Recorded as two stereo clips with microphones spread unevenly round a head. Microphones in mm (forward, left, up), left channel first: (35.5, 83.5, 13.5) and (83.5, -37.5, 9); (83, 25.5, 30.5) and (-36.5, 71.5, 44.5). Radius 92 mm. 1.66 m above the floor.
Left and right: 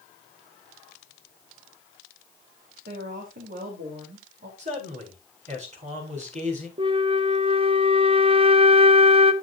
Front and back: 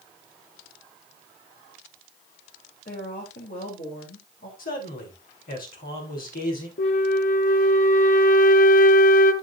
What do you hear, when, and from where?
2.9 s a woman speaking: 60° right, 3.5 m
4.6 s a man speaking: 40° right, 6.5 m
6.8 s a flute: 20° right, 1.2 m